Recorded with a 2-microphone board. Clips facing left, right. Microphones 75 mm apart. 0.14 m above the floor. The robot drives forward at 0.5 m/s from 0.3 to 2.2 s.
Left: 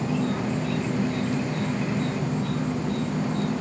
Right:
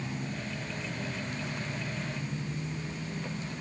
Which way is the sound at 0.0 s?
80° left.